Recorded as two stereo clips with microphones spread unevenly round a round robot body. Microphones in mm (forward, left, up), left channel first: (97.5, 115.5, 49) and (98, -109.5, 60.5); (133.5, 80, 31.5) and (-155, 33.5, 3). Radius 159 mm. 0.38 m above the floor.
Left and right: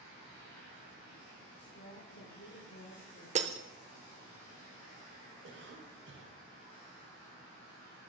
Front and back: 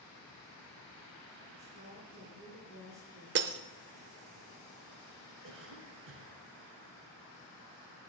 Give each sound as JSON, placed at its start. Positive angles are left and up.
{"t": 1.6, "sound": "a woman speaking", "azimuth_deg": 70, "distance_m": 4.0}
{"t": 3.4, "sound": "breaking glass", "azimuth_deg": -145, "distance_m": 0.7}
{"t": 5.4, "sound": "a cough", "azimuth_deg": -130, "distance_m": 2.0}